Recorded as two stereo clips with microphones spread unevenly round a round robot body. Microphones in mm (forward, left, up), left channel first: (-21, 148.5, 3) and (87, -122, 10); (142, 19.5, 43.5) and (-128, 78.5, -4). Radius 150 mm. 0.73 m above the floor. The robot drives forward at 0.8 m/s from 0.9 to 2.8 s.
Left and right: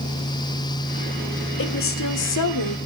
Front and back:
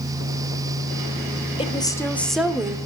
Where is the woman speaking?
60° left, 1.9 m; by 2.8 s 90° left, 1.7 m.